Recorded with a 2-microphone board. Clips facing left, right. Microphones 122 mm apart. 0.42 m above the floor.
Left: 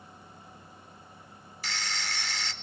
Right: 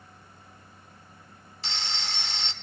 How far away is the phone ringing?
About 0.6 m.